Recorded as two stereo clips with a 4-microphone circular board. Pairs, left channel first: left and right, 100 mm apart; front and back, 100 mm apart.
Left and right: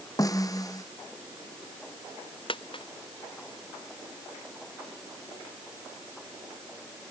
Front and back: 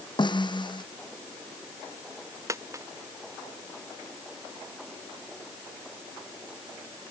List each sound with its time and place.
0.2 s a snare drum: 35° left
2.5 s a dropped coin: 120° left